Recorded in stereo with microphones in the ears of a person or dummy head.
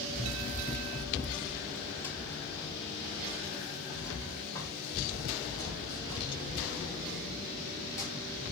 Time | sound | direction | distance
0.1 | running footsteps | 5° left (ahead or behind) | 1.3 m